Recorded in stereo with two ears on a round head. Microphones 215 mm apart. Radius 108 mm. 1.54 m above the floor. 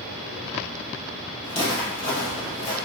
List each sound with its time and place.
1.4 s footsteps: 40° left (ahead or behind), 2.0 m; by 2.8 s 25° left (ahead or behind), 1.7 m